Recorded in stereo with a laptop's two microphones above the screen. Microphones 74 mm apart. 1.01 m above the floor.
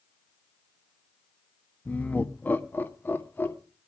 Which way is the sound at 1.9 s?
20° left (ahead or behind).